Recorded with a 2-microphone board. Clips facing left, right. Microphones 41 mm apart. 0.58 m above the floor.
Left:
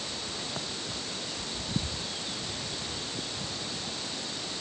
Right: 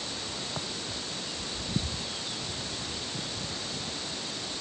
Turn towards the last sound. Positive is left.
No sound to turn to.